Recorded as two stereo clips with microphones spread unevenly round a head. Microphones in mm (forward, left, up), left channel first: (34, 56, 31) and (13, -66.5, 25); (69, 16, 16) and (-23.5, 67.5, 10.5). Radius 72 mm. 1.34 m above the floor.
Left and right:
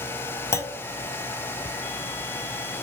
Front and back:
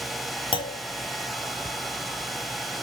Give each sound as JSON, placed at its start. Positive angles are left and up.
{"t": 0.5, "sound": "a clunk", "azimuth_deg": 10, "distance_m": 1.1}